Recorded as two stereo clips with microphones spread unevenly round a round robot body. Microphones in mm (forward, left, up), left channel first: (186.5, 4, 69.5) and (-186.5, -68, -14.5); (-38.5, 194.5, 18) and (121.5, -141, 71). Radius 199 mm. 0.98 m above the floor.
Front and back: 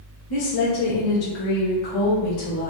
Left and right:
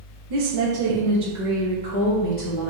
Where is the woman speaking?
30° right, 0.9 m; by 2.7 s 70° left, 1.2 m.